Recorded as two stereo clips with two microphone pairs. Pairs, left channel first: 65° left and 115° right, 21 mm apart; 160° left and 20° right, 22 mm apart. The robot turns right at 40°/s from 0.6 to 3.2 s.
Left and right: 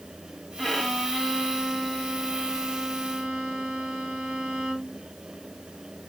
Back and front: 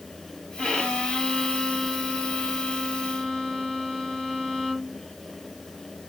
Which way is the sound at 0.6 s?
120° left.